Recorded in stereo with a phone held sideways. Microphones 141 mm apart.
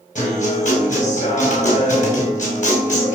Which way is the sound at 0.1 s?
60° left (ahead or behind).